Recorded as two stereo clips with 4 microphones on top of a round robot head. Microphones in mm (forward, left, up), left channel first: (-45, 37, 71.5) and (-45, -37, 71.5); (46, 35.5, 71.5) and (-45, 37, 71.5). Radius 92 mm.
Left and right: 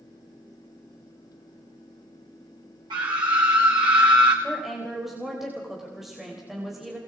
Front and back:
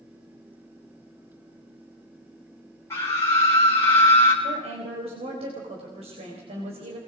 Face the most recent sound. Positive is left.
turn(degrees=180)